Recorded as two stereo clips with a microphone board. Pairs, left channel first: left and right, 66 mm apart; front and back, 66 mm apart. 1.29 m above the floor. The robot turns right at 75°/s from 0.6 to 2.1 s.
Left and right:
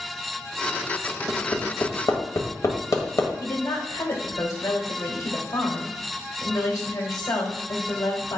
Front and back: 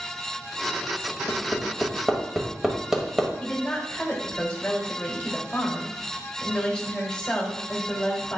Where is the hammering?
40° left, 1.5 m; by 3.3 s 100° left, 1.5 m.